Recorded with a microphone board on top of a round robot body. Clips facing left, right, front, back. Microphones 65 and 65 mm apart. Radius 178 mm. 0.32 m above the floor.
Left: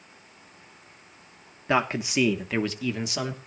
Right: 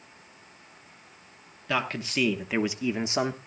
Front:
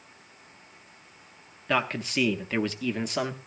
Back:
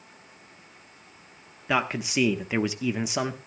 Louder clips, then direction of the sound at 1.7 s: Left 5 dB, back 1 dB; 110° left.